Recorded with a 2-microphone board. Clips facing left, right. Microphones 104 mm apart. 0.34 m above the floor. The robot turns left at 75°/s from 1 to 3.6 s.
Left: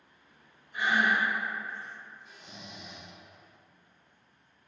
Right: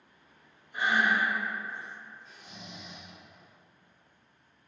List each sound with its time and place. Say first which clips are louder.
0.7 s breathing: even; 30° right (ahead or behind), 0.8 m; by 1.3 s 25° right (ahead or behind), 0.8 m
2.2 s snoring: even; 165° left, 1.2 m; by 3.1 s 100° left, 1.2 m